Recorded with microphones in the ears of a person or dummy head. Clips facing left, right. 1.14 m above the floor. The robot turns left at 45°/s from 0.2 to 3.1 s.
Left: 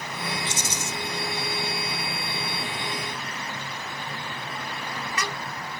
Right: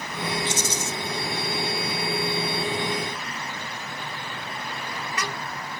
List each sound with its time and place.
0.5 s a rattle: 60° right (ahead or behind), 1.1 m; by 0.9 s 55° right (ahead or behind), 1.1 m